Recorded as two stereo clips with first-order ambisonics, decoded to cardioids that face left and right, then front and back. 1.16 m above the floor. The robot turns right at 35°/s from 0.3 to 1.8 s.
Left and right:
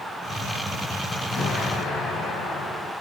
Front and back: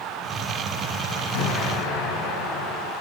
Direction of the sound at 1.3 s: 15° left.